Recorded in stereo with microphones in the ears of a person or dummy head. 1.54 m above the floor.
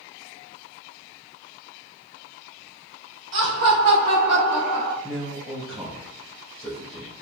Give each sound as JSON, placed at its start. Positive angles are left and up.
{"t": 3.3, "sound": "laughter", "side_deg": -75, "distance_m": 1.0}
{"t": 5.0, "sound": "a man speaking", "side_deg": -5, "distance_m": 1.5}